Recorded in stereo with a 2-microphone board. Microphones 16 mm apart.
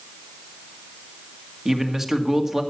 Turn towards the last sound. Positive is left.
turn(degrees=-35)  # may be behind; listen again after turning